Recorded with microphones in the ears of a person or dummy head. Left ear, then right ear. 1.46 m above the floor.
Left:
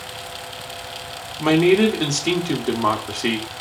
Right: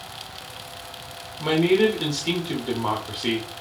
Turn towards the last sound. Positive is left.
turn(degrees=60)  # may be behind; listen again after turning